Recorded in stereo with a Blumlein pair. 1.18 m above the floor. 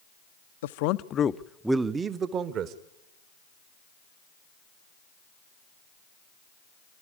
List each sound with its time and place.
0.6 s a man speaking: 60° left, 0.7 m; by 2.8 s 35° right, 1.2 m